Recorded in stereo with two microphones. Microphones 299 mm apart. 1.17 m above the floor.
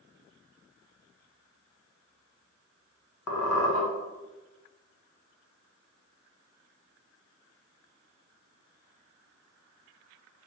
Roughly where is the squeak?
Left.